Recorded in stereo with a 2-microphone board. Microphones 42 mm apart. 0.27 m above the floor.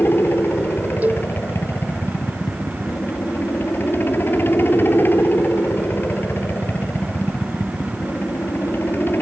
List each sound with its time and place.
0.0 s a helicopter: 55° left (ahead or behind)
1.0 s a cowbell: 40° right (ahead or behind)